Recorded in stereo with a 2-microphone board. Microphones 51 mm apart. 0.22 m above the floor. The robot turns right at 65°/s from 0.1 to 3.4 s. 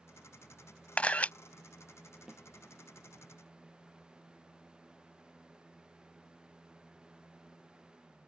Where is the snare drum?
5° right (ahead or behind); by 2.4 s 5° left (ahead or behind).